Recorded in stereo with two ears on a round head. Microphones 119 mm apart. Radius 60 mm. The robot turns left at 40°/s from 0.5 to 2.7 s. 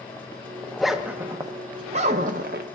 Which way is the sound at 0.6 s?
5° left (ahead or behind).